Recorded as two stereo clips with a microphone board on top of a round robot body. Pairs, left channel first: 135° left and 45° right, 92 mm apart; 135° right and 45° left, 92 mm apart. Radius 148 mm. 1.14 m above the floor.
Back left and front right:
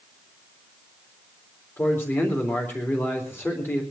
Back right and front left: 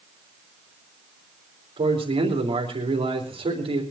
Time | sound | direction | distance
1.8 | a man speaking | 70° left | 3.5 m